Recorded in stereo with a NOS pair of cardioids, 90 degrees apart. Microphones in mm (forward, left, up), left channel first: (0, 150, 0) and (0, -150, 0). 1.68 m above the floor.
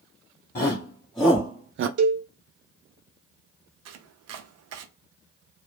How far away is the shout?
About 1.2 m.